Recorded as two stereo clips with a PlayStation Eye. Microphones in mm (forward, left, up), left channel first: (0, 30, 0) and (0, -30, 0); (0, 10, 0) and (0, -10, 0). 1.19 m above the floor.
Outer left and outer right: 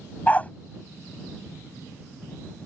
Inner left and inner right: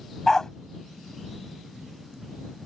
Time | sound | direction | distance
0.3 | a dog barking | 25° left (ahead or behind) | ?